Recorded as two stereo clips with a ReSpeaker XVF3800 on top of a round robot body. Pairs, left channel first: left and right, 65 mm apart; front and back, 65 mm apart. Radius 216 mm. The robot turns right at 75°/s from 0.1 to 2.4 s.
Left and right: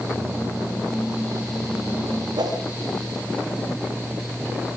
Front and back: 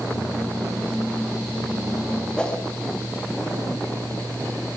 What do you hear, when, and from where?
2.4 s a whoosh: 80° right, 4 m